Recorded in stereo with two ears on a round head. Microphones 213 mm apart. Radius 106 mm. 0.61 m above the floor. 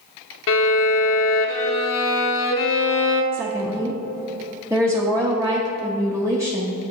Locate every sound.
0.5 s a violin: 55° left (ahead or behind), 0.7 m
3.3 s a woman speaking: 10° right (ahead or behind), 0.8 m